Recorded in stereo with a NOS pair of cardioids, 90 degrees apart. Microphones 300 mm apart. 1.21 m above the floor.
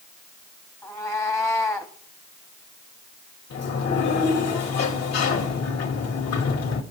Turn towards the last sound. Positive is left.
turn(degrees=55)